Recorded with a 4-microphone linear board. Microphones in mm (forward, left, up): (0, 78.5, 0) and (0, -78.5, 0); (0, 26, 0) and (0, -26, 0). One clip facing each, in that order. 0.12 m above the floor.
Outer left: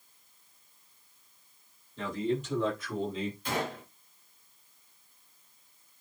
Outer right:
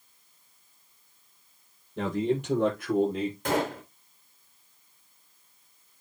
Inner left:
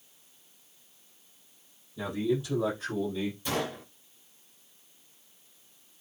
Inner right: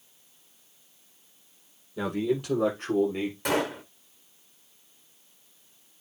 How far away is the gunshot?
About 3.5 m.